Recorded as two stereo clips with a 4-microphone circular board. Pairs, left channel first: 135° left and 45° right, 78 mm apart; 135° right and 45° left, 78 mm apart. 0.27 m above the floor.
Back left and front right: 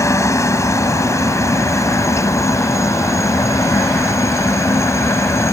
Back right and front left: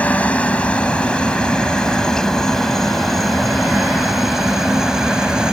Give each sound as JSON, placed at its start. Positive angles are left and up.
{"t": 0.0, "sound": "a helicopter", "azimuth_deg": 160}